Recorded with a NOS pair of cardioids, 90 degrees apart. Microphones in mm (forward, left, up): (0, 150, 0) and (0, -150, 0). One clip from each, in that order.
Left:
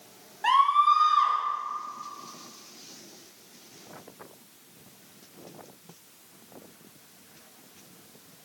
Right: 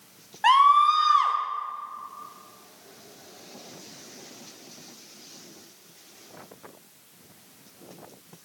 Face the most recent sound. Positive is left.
turn(degrees=-25)